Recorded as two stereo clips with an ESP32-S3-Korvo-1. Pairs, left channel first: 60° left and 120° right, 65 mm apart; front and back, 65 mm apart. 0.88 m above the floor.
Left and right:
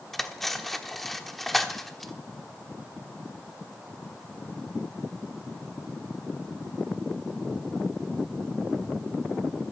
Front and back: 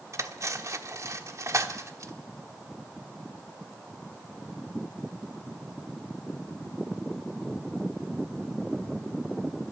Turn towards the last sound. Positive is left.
turn(degrees=145)